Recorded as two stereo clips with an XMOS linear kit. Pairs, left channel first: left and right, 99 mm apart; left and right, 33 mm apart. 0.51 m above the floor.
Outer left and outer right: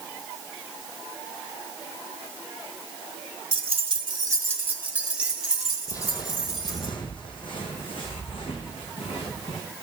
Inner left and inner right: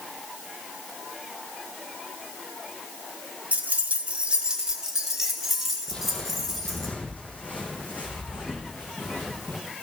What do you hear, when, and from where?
3.5 s keys jangling: 60° right (ahead or behind), 1.0 m; by 6.9 s centre (ahead or behind), 4.5 m
5.9 s footsteps: 35° left (ahead or behind), 1.0 m; by 9.6 s 65° left (ahead or behind), 3 m